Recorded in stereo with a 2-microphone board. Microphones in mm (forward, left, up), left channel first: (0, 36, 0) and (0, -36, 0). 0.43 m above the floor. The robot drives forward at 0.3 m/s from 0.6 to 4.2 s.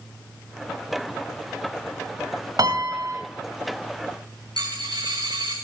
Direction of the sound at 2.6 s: 55° right (ahead or behind).